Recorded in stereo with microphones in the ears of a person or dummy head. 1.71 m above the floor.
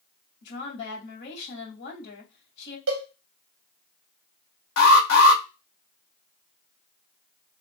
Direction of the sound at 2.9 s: 60° right (ahead or behind).